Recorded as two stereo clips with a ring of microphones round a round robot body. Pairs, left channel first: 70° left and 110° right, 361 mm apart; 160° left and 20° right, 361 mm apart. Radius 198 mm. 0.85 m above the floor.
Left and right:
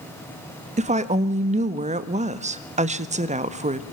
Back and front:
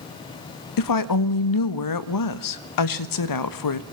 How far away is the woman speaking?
About 1.4 m.